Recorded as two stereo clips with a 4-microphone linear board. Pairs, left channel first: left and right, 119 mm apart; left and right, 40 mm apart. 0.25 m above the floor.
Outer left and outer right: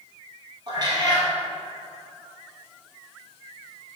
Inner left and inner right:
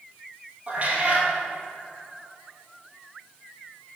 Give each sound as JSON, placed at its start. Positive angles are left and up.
{"t": 0.7, "sound": "a cat meowing", "side_deg": -35, "distance_m": 2.5}